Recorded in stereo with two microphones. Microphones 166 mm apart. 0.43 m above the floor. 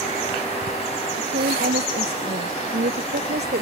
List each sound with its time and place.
1.1 s a woman speaking: 70° right (ahead or behind); by 3.6 s 80° right